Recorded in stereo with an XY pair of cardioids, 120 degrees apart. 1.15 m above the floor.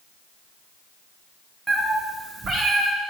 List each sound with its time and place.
1.7 s a cat meowing: 20° right, 1.3 m; by 2.9 s 50° right, 1.6 m